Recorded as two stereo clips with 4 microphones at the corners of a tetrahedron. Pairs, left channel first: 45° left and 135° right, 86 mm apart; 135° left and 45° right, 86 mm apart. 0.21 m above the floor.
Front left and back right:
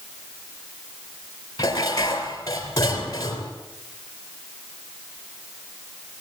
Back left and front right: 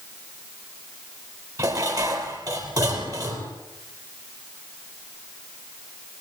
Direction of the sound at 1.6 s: Straight ahead.